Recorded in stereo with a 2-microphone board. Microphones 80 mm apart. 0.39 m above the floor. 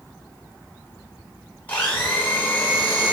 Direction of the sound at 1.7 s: 20° left (ahead or behind).